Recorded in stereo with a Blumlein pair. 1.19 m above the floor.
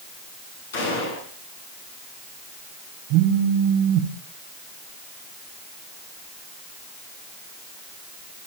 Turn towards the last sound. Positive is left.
turn(degrees=-40)